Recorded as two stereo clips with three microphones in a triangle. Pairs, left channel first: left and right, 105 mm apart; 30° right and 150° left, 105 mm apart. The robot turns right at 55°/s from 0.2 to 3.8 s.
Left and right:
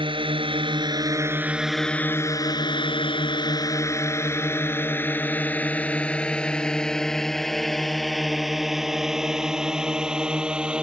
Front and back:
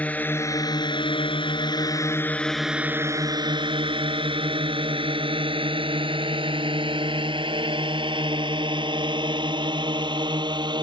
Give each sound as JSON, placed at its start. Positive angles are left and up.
{"t": 0.0, "sound": "a drone", "azimuth_deg": -105}